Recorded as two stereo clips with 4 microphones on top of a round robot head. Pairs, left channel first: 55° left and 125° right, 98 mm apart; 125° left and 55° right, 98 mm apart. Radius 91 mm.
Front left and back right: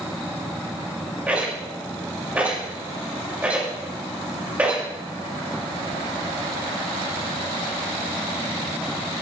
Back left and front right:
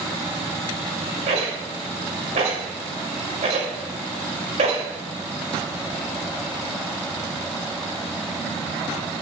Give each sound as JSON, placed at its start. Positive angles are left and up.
{"t": 1.3, "sound": "a rattle", "azimuth_deg": -50, "distance_m": 6.0}